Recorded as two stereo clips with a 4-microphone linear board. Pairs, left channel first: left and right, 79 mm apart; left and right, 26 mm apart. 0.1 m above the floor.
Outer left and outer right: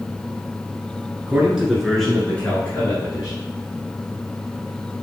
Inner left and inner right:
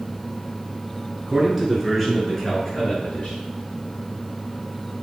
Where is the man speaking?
20° right (ahead or behind), 1.8 m; by 3.4 s 40° left (ahead or behind), 2 m.